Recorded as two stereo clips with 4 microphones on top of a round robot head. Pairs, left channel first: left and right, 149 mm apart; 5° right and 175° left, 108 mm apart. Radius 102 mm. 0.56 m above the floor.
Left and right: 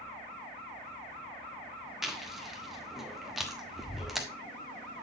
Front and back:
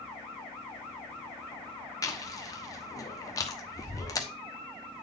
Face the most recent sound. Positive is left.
turn(degrees=-5)